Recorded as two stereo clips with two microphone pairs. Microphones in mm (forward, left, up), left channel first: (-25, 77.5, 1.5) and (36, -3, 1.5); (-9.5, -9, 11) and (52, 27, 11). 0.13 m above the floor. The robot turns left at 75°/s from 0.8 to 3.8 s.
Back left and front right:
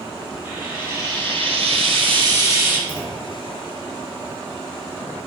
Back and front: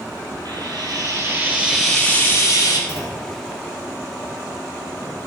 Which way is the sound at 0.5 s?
20° left.